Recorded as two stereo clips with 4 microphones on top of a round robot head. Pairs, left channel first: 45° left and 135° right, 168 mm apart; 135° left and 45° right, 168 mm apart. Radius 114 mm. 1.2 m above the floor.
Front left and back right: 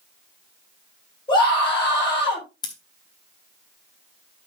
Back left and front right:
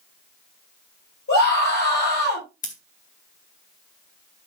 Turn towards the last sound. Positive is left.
turn(degrees=100)